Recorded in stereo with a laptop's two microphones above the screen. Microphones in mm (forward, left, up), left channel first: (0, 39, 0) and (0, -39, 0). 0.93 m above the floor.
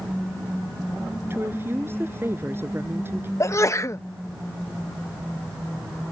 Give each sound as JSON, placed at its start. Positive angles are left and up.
{"t": 1.3, "sound": "a woman speaking", "side_deg": -30}
{"t": 3.4, "sound": "a sneeze", "side_deg": 40}